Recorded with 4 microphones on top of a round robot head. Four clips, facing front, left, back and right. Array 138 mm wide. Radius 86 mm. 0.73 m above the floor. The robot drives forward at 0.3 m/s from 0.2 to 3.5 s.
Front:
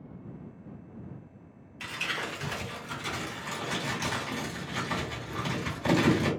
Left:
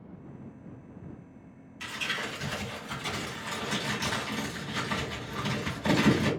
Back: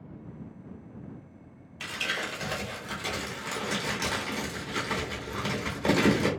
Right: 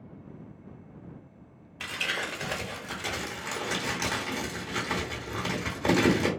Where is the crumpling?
110° right, 1.2 m; by 6.3 s 130° right, 1.4 m.